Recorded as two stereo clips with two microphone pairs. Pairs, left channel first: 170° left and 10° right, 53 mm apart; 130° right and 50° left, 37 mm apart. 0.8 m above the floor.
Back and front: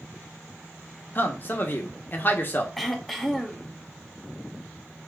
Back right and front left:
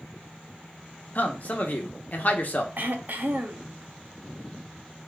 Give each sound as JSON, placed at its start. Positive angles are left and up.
{"t": 1.1, "sound": "a man speaking", "azimuth_deg": -155, "distance_m": 1.1}
{"t": 2.8, "sound": "throat clearing", "azimuth_deg": 80, "distance_m": 0.7}